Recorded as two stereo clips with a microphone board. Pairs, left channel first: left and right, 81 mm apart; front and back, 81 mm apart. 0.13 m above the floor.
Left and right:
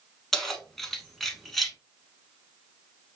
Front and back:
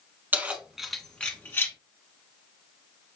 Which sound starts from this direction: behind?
Keys jangling, at 0.3 s.